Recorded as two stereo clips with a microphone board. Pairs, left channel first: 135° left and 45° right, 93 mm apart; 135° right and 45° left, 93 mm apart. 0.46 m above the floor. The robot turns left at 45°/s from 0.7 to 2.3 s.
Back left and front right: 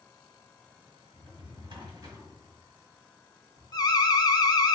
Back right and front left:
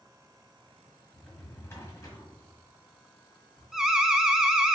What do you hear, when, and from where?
1.1 s a drawer: 40° right, 1.4 m; by 3.6 s 95° right, 1.4 m
3.7 s an alarm: 130° left, 0.5 m